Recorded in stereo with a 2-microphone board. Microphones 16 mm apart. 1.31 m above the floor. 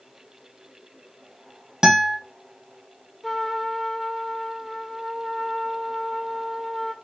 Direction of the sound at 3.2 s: 10° left (ahead or behind).